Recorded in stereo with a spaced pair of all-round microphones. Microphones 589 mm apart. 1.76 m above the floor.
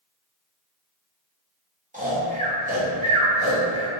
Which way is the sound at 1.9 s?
15° right (ahead or behind).